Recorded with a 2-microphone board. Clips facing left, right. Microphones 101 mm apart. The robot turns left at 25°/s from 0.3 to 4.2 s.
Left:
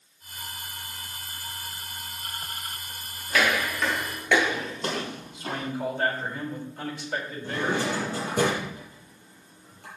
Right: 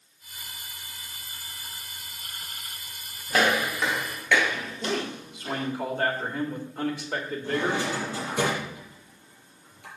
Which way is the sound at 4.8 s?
60° right (ahead or behind).